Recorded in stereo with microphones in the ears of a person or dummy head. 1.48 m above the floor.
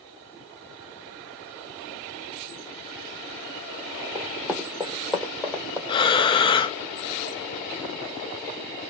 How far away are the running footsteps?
About 2.5 m.